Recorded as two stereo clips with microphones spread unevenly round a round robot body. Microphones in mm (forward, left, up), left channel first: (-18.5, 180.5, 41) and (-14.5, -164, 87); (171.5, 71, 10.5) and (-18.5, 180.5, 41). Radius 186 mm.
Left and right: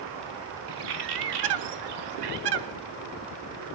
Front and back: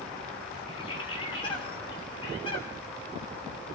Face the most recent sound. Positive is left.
turn(degrees=-110)